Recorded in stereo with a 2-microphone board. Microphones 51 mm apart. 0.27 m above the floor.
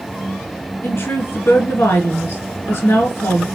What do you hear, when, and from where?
0.8 s a woman speaking: 50° left (ahead or behind), 3 m